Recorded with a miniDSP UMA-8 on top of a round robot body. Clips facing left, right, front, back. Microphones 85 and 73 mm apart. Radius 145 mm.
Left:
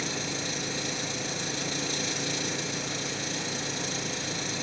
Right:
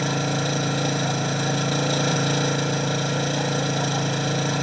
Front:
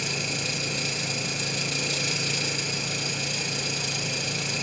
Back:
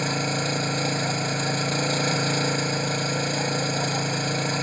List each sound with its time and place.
0.0 s an engine running: 125° right